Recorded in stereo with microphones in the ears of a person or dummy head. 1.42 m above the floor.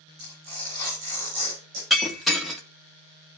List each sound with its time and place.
0.2 s tearing paper: 55° right (ahead or behind), 7 m
1.9 s breaking glass: 5° left (ahead or behind), 1.6 m